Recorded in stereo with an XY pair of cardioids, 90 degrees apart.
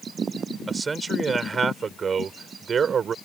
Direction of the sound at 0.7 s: 40° right.